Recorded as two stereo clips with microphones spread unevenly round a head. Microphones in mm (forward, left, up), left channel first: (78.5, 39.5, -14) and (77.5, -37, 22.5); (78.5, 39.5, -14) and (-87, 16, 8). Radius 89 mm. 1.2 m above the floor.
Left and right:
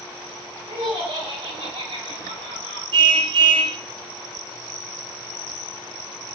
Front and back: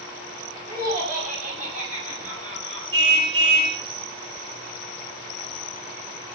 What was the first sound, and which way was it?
Laughter, 130° right.